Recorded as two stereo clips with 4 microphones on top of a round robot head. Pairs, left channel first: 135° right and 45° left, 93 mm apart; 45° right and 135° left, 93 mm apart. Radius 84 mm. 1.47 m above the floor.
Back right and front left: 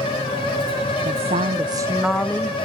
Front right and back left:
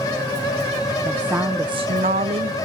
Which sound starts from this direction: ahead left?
A woman speaking, at 1.1 s.